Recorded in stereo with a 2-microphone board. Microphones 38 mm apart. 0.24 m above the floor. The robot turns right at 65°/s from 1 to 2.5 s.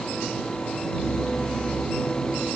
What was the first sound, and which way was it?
Only background noise.